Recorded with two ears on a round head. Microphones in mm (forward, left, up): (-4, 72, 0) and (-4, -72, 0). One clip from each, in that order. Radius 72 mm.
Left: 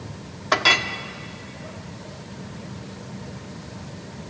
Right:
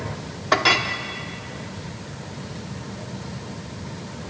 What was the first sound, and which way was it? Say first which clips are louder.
A clink: even; 20° left (ahead or behind).